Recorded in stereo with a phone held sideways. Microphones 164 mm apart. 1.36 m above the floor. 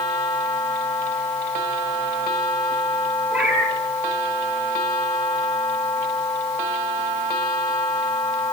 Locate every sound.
3.3 s a cat meowing: 10° right (ahead or behind), 5 m